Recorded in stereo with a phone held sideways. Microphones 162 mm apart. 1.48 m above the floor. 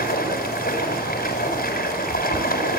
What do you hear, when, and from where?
0.0 s running water: 70° left (ahead or behind), 7 m